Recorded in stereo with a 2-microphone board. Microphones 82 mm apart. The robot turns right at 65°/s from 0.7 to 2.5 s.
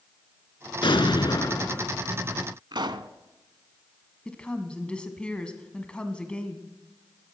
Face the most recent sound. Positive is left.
turn(degrees=10)  # may be behind; listen again after turning